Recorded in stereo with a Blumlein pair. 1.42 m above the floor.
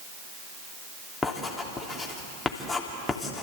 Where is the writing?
10° left, 3 m.